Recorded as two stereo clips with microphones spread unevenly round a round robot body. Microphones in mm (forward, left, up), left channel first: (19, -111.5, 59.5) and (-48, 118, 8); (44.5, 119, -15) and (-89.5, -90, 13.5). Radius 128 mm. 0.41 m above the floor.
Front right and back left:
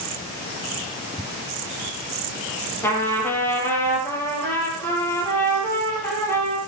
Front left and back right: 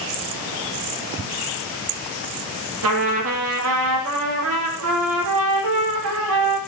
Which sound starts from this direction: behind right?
A trumpet, at 2.8 s.